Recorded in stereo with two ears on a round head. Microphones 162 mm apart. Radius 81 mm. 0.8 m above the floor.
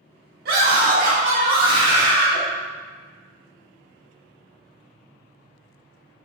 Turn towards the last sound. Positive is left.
turn(degrees=0)  # may be behind; listen again after turning